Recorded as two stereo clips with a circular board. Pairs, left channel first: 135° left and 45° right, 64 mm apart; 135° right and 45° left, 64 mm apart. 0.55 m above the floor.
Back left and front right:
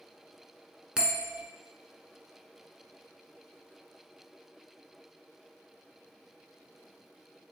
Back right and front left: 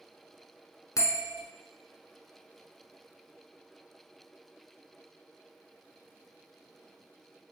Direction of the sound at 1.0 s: 120° right.